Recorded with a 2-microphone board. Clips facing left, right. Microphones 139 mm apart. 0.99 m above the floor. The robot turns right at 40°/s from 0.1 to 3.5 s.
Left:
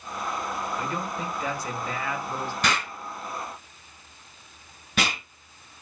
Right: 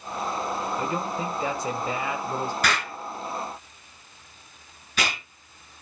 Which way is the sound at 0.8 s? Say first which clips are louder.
Right 3 dB; 20° right (ahead or behind).